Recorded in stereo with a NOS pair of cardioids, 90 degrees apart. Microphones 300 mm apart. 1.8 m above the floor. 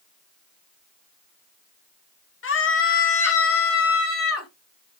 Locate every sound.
2.4 s a scream: 45° left, 2.5 m